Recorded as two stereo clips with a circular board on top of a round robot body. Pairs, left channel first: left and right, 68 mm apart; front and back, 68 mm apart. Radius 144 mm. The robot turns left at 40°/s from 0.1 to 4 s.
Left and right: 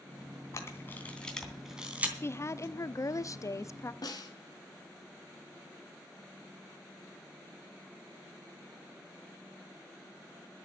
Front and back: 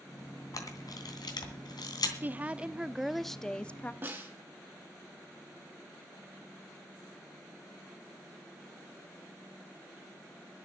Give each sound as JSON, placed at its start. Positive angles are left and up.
{"t": 0.5, "sound": "a camera shutter", "azimuth_deg": 40, "distance_m": 3.0}
{"t": 2.2, "sound": "a woman speaking", "azimuth_deg": 130, "distance_m": 0.9}
{"t": 4.0, "sound": "a snare drum", "azimuth_deg": 120, "distance_m": 2.5}